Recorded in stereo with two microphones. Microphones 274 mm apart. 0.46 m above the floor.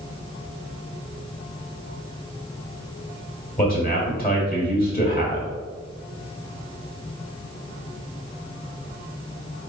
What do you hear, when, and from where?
3.6 s a man speaking: 30° left (ahead or behind), 1.4 m